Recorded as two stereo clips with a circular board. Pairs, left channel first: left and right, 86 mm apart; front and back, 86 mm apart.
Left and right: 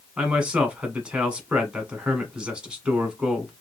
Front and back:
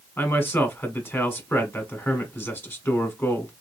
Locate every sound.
0.2 s a man speaking: 25° right, 1.1 m